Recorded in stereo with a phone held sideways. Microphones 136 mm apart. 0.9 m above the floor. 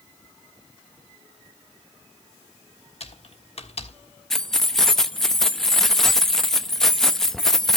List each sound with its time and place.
3.0 s typing on a keyboard: 50° left (ahead or behind), 1.4 m
4.3 s keys jangling: 5° left (ahead or behind), 0.7 m